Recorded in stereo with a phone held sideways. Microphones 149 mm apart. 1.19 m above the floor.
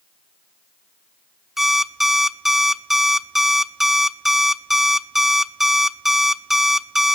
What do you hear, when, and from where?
1.6 s an alarm clock: centre (ahead or behind), 0.7 m